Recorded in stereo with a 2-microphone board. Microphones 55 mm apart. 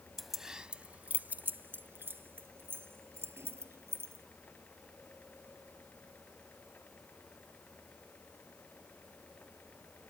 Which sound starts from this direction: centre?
Keys jangling, at 0.2 s.